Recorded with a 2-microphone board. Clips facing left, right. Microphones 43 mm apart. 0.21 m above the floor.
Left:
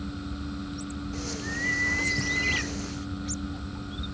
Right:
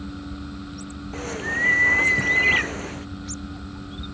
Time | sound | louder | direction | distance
1.1 | a bird | right 9 dB | 30° right (ahead or behind) | ?